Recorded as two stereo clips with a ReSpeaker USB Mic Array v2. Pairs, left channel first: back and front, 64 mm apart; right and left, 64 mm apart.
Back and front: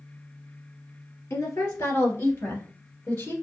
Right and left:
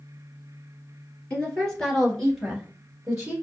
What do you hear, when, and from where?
1.3 s a woman speaking: 155° right, 1.8 m; by 3.3 s 150° left, 1.5 m